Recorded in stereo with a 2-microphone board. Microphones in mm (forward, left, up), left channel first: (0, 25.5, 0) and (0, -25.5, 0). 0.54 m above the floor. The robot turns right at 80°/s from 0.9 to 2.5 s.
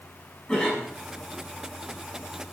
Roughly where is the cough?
Centre.